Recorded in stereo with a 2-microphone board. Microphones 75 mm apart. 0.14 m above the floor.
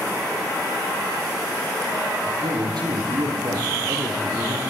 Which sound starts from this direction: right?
A man speaking, at 2.2 s.